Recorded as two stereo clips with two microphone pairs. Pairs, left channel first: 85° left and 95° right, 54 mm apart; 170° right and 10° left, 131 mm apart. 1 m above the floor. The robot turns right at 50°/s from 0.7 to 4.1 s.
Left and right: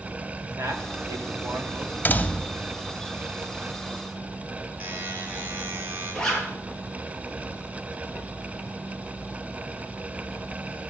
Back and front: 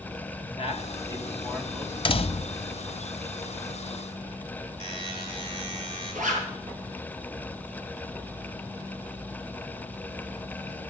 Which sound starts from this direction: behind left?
A door slam, at 2.0 s.